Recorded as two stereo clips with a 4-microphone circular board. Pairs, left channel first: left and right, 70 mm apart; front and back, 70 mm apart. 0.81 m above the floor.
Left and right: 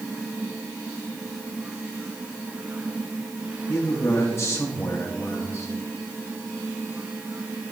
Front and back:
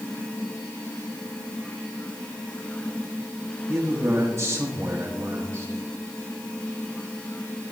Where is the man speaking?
140° left, 1.3 m.